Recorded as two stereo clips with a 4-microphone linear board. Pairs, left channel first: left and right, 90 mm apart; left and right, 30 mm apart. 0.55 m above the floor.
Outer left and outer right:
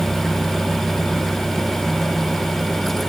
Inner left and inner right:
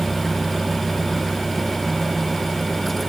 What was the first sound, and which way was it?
Only background noise.